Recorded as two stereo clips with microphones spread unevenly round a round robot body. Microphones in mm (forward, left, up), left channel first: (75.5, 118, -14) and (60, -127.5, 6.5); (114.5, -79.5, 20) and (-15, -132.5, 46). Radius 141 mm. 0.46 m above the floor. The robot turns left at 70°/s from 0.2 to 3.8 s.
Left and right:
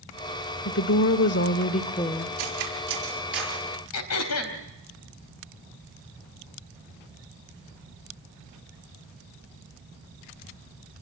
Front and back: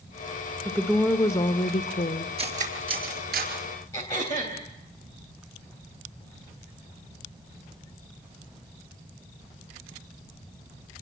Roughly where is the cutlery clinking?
Right.